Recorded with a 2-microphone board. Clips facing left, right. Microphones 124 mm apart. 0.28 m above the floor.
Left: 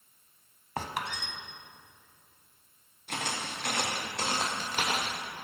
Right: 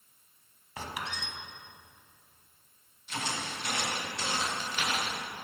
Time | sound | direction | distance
0.8 | a squeak | 55° left (ahead or behind) | 1.0 m
3.1 | footsteps | 60° left (ahead or behind) | 3 m